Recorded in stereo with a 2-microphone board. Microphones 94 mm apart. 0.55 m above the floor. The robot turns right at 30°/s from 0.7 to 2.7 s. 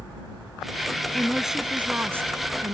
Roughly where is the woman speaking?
Behind.